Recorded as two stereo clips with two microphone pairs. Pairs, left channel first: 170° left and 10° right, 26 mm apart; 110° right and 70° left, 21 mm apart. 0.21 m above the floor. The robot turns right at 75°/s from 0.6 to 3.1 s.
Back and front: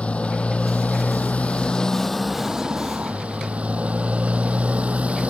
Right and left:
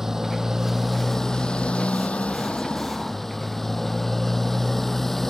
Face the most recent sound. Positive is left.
turn(degrees=-35)